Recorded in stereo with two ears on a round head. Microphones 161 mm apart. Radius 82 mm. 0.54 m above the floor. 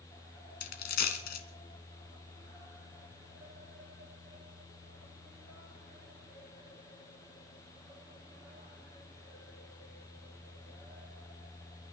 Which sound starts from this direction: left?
A dropped coin, at 0.6 s.